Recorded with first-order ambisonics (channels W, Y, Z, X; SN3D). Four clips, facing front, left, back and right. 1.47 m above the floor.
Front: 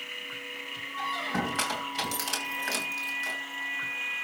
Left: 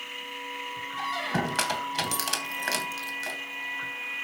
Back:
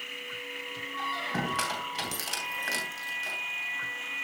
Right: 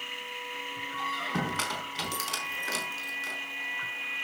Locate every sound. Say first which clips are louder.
1.0 s a squeak: left 3 dB, front 1 dB; 85° left, 3 m